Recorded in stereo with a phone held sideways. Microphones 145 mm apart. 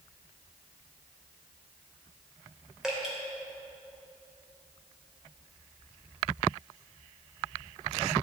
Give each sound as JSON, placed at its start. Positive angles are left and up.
{"t": 2.8, "sound": "dripping", "side_deg": -5, "distance_m": 3.0}